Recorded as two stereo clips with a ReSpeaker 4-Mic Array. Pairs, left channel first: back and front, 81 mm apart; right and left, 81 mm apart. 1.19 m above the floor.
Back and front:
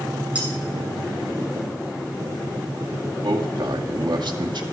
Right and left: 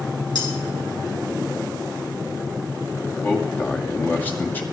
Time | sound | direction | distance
0.3 | cutlery clinking | 70° right | 7 m
3.2 | a man speaking | 20° right | 2 m